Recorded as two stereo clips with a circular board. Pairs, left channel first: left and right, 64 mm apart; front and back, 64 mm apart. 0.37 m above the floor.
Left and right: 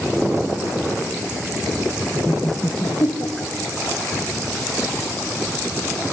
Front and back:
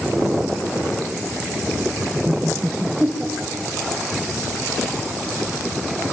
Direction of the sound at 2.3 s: 130° left.